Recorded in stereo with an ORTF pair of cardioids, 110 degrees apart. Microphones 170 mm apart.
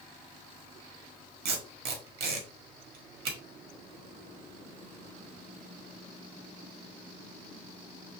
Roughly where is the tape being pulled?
Right.